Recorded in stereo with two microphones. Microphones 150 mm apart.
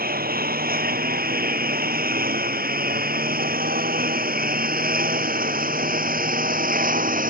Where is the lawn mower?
85° right; by 7.3 s 70° right (ahead or behind).